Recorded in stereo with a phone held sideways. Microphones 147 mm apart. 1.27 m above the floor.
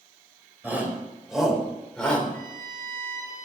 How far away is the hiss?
No hiss in this recording.